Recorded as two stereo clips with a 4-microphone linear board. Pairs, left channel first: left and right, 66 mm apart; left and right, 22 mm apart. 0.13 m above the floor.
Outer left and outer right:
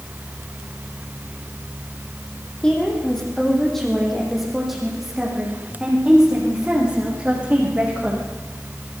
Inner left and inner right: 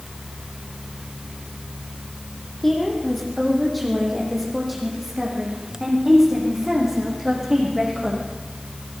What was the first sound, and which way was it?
A woman speaking, 10° left (ahead or behind).